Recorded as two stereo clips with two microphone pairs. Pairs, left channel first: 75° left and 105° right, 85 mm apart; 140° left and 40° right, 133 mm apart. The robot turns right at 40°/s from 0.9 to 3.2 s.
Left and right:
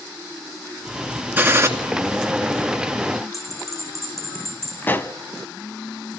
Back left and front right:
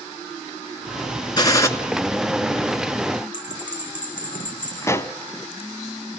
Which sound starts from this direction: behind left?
A bell, at 3.3 s.